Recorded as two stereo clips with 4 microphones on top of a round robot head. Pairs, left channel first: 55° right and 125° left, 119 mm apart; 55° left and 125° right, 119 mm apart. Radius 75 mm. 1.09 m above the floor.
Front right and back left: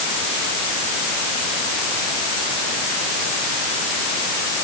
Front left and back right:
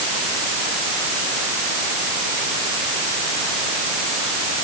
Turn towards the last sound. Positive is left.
No sound to turn to.